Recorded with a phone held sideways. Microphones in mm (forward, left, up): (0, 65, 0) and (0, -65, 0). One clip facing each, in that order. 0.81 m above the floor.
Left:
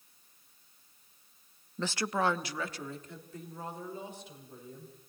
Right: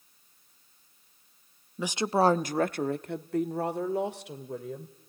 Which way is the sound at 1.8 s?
5° right (ahead or behind).